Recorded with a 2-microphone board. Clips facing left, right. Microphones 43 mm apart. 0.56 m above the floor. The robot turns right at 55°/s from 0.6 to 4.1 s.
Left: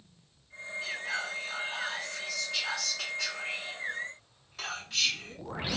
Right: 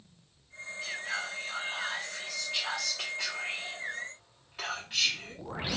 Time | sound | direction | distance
0.8 | whispering | 15° left (ahead or behind) | 1.3 m